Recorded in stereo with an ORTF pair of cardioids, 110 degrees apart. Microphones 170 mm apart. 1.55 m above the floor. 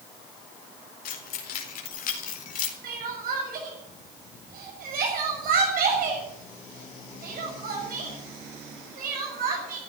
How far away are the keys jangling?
About 4.5 m.